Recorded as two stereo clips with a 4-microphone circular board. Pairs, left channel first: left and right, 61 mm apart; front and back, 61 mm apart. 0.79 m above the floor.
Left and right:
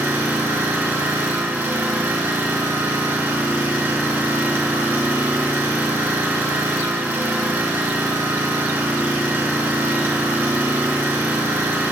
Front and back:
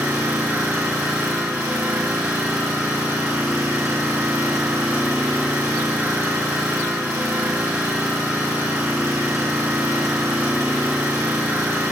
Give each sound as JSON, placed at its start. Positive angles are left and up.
{"t": 0.0, "sound": "an engine running", "azimuth_deg": -150, "distance_m": 2.5}